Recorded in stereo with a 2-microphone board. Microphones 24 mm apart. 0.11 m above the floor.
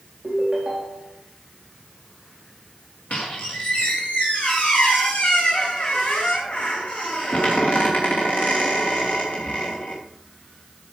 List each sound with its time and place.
0.2 s a ringtone: 10° right (ahead or behind), 3.5 m
3.1 s a squeak: 70° left (ahead or behind), 3.5 m